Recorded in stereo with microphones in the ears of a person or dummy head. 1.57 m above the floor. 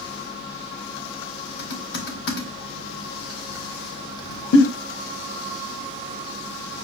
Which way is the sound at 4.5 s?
80° left.